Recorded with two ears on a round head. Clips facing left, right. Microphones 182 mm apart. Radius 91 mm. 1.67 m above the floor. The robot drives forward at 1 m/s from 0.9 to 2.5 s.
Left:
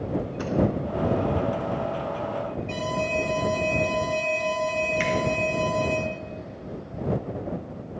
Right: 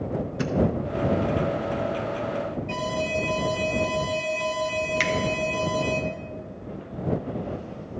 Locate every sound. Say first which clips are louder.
0.4 s a thud: right 1 dB; 25° right (ahead or behind), 1.0 m
2.7 s an alarm: even; 5° right (ahead or behind), 1.8 m
5.0 s a finger snap: left 1 dB; 50° right (ahead or behind), 1.2 m